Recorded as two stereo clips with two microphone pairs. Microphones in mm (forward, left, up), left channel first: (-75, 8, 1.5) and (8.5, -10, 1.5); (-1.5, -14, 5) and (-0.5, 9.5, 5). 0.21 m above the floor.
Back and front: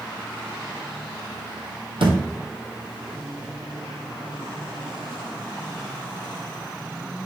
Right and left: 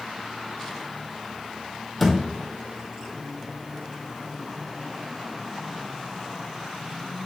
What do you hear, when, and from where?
2.0 s a thud: 5° right, 1.6 m